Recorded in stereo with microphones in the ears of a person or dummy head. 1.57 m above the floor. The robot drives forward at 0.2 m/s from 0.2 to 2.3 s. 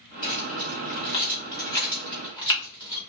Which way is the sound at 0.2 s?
20° left (ahead or behind).